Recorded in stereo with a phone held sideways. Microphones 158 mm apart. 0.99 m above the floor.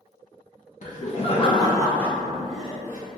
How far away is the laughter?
About 0.6 m.